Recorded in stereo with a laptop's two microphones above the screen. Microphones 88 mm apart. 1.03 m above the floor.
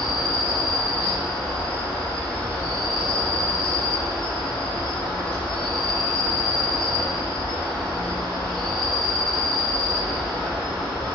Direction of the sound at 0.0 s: 80° left.